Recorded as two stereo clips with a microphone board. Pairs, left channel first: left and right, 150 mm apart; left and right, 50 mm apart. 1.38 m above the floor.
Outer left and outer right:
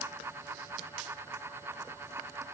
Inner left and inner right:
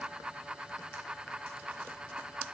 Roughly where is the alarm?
No alarm in this recording.